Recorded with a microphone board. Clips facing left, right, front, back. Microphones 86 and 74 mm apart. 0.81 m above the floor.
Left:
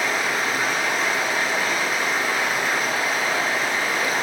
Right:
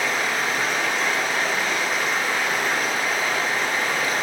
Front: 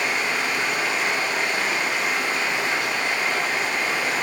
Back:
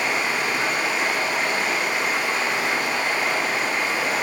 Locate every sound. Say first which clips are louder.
0.0 s running water: left 1 dB, back 1 dB; 165° left, 0.7 m